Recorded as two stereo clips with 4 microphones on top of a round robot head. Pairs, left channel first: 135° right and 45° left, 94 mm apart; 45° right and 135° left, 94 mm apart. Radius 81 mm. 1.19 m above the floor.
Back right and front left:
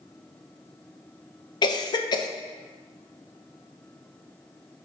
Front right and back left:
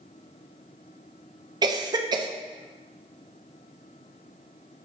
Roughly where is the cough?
Behind.